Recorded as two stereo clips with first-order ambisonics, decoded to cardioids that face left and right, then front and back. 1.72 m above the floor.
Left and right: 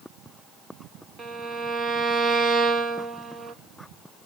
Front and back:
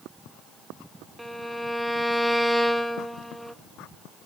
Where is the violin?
95° right, 0.7 m.